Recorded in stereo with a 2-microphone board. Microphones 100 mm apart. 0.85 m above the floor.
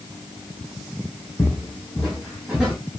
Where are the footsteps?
25° left (ahead or behind), 1.9 m; by 2.8 s 10° right (ahead or behind), 3 m.